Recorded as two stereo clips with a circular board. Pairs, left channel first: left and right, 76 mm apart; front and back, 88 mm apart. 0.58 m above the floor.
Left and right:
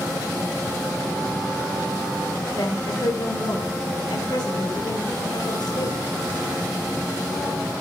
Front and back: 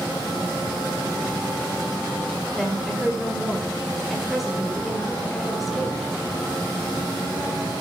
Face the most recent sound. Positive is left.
turn(degrees=95)